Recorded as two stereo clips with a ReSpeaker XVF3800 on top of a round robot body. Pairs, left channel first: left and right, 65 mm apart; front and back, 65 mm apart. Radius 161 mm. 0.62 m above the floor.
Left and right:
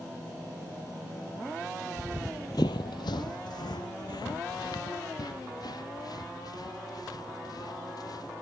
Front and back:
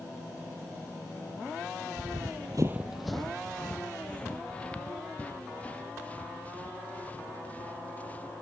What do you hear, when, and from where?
2.0 s running footsteps: 145° right; by 8.3 s 65° left